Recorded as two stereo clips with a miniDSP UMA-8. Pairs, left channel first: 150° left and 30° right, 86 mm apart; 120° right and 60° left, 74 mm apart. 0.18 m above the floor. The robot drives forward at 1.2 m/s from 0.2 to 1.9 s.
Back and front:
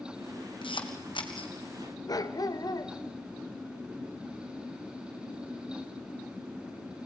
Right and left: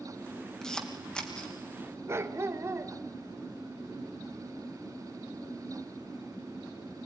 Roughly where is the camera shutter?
Behind.